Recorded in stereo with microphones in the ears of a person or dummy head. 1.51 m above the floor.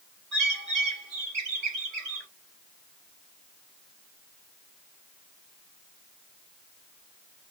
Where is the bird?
45° right (ahead or behind), 3.5 m.